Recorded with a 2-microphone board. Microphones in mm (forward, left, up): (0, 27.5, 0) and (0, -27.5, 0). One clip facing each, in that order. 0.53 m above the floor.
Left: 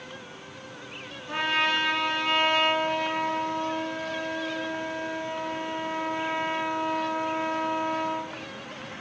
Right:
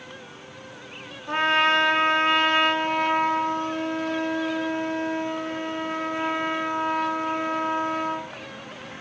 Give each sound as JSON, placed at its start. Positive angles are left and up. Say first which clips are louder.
{"t": 1.3, "sound": "a trumpet", "louder": "right 5 dB", "side_deg": -45, "distance_m": 1.5}